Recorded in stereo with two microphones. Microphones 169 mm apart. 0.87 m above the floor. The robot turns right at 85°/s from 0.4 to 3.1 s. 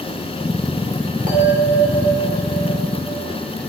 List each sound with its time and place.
1.3 s a bell: 55° right, 2 m; by 3.2 s 100° left, 2 m